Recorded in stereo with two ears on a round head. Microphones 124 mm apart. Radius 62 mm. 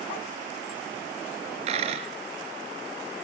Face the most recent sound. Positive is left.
turn(degrees=-45)  # may be behind; listen again after turning